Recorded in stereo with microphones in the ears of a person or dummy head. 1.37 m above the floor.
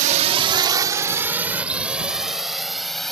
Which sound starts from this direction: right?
A drone, at 0.0 s.